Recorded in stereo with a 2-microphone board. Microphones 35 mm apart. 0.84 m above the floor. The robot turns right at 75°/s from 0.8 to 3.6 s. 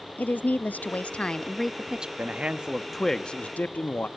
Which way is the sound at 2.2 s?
55° right.